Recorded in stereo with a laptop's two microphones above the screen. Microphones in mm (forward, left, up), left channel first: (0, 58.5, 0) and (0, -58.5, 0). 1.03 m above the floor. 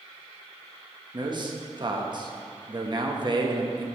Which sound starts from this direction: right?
A man speaking, at 1.1 s.